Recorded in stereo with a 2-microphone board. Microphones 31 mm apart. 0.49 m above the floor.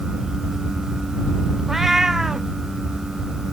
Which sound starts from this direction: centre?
A cat meowing, at 1.7 s.